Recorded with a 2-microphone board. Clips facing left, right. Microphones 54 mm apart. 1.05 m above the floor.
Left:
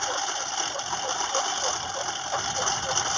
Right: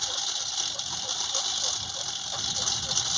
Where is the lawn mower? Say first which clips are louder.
Left 8 dB; 40° left (ahead or behind).